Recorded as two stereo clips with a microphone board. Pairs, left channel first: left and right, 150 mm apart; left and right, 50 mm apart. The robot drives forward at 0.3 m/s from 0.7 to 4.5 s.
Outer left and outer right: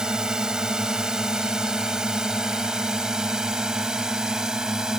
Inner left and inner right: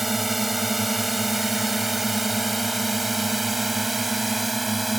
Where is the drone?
5° right (ahead or behind).